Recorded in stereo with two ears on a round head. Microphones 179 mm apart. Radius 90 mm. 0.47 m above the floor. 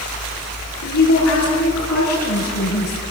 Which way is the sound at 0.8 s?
85° left.